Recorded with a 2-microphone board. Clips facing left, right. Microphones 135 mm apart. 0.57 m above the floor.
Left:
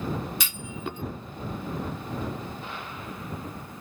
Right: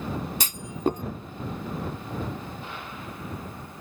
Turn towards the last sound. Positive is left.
turn(degrees=-40)  # may be behind; listen again after turning